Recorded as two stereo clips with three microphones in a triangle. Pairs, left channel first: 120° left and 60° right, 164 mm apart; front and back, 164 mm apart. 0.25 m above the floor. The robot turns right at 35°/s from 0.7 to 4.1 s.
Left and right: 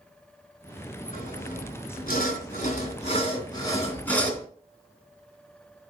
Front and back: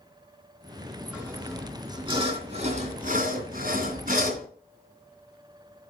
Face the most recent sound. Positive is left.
turn(degrees=-160)